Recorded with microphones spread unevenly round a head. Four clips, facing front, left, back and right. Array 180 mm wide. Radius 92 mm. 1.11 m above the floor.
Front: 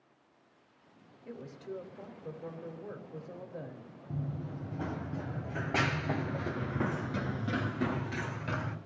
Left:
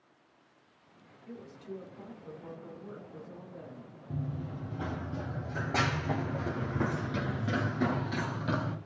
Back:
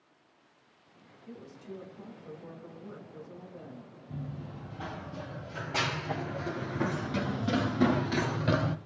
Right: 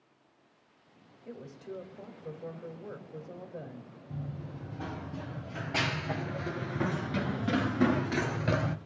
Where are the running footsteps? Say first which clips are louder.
Left 3 dB, front 2 dB; 40° left, 2.5 m; by 8.8 s 140° right, 1.4 m.